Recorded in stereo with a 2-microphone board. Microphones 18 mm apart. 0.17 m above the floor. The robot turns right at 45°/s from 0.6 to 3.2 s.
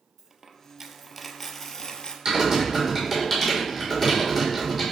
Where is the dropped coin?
30° right, 0.5 m; by 2.1 s 40° left, 0.5 m.